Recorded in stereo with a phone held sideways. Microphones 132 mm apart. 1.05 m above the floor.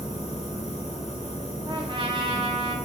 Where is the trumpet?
35° right (ahead or behind), 0.6 m.